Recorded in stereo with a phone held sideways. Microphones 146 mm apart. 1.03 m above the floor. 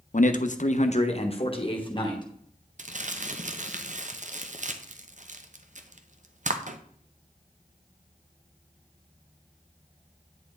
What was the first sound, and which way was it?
A man speaking, 60° left (ahead or behind).